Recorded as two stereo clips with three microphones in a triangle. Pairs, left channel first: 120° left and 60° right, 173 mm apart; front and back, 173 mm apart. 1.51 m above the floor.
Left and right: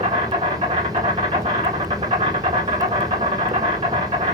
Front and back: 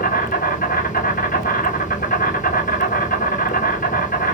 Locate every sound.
0.0 s an insect: 15° right, 1.2 m